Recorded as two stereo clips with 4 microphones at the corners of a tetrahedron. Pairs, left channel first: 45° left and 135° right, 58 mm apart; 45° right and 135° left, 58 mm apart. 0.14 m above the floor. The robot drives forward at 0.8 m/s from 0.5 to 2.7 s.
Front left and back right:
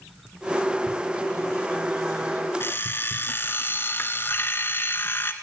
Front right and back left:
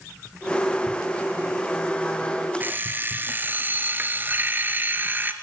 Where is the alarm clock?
85° left, 1.4 m; by 5.3 s 90° left, 1.4 m.